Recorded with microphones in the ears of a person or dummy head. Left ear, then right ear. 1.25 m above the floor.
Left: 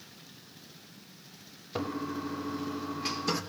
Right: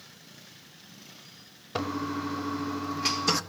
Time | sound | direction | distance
1.8 | a toilet flushing | 25° right (ahead or behind) | 0.5 m